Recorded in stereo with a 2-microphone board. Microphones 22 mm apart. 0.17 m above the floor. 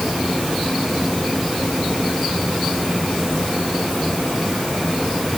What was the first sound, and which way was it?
Only background noise.